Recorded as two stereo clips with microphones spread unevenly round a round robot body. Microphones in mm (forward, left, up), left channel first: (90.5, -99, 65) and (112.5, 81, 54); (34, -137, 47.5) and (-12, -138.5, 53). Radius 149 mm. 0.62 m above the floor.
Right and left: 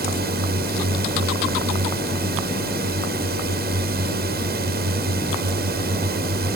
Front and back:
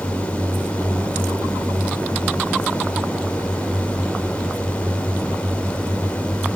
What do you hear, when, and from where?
0.0 s a drone: 65° left